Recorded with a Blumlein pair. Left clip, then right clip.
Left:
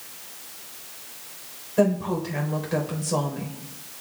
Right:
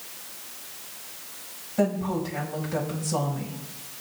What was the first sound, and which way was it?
A woman speaking, 40° left.